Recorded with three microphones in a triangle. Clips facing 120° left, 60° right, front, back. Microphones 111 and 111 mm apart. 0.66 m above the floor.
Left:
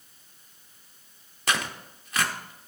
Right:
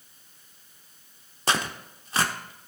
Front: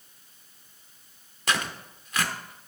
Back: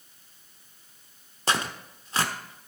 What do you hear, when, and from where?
1.5 s tearing paper: 120° right, 1.0 m